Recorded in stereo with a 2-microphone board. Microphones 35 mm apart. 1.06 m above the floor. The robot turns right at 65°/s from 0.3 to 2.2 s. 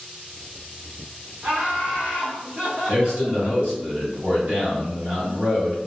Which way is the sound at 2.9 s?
35° right (ahead or behind).